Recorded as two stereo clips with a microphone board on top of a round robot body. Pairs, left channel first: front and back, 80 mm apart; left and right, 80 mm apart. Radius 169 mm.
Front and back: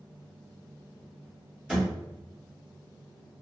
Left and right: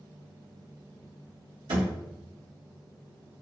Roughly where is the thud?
Right.